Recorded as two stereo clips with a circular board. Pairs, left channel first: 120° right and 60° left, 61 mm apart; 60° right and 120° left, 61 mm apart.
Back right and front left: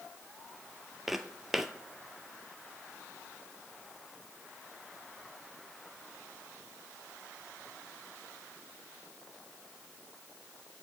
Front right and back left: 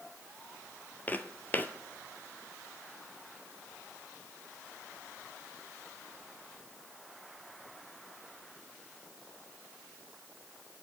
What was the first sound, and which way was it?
Footsteps, 25° right.